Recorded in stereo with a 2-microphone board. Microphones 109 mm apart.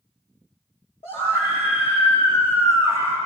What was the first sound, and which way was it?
A scream, 60° left (ahead or behind).